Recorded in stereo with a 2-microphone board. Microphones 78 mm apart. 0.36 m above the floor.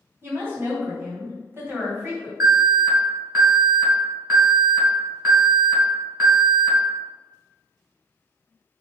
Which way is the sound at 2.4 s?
40° right (ahead or behind).